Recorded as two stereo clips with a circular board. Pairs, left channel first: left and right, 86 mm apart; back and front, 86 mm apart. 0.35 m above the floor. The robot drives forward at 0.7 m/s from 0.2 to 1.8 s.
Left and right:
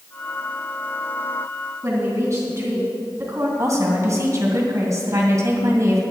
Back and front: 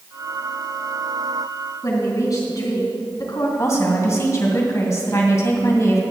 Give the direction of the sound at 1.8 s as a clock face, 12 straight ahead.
5 o'clock.